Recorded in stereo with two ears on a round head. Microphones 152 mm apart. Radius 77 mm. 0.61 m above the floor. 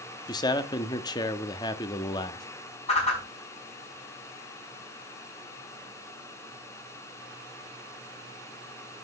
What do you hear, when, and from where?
0.3 s a man speaking: 25° left (ahead or behind), 0.8 m
2.9 s a whoosh: 40° left (ahead or behind), 5 m